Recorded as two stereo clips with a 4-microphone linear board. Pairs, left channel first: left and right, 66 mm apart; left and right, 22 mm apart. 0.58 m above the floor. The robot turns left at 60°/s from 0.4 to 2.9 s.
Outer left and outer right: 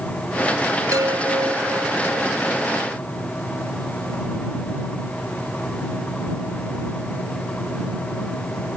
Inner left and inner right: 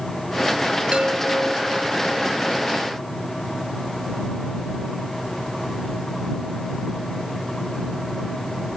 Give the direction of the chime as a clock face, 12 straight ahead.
2 o'clock.